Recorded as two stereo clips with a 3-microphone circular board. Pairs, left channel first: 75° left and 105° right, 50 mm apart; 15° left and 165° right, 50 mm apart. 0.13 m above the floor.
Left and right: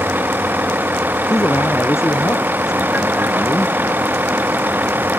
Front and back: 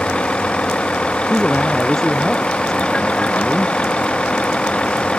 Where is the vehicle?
55° right.